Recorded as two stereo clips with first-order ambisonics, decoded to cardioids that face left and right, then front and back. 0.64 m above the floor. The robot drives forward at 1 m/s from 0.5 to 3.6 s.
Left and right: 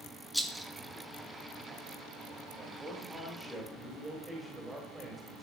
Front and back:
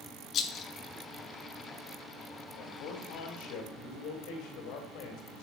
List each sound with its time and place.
0.3 s a rattle: straight ahead, 0.8 m
2.5 s a man speaking: 5° right, 4.5 m